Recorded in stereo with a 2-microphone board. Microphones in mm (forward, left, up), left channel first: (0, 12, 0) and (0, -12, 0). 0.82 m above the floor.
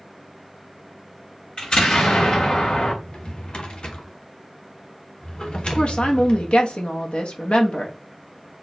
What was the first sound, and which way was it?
An explosion, 40° left (ahead or behind).